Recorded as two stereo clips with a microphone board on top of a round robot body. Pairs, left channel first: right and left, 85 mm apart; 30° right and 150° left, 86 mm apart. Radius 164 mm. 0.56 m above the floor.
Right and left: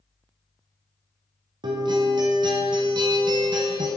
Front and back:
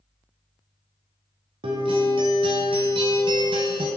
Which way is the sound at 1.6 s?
130° left.